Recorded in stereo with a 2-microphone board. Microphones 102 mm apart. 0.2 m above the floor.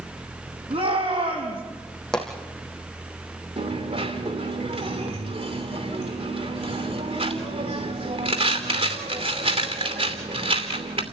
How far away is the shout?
About 6.5 m.